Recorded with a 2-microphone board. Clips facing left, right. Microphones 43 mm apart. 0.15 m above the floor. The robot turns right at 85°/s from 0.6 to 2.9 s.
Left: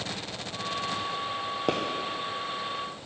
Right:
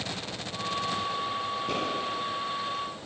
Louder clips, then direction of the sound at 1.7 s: Left 6 dB; 75° left (ahead or behind).